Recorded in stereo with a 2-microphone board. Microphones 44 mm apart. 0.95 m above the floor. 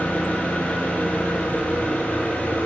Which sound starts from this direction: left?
An engine running, at 0.0 s.